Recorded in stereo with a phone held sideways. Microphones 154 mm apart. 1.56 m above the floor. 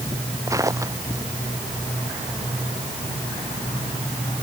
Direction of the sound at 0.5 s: 20° right (ahead or behind).